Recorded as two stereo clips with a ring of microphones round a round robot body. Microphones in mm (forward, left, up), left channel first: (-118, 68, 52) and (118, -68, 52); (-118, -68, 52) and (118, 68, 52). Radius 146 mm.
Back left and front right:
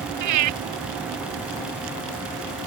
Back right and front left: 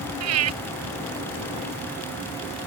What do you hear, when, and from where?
0.2 s breathing: 5° right